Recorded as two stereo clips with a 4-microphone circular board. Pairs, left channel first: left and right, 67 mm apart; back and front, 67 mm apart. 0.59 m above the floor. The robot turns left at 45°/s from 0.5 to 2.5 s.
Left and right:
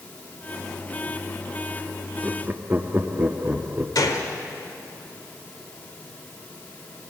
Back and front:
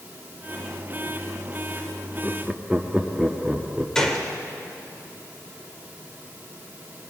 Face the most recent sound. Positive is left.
turn(degrees=100)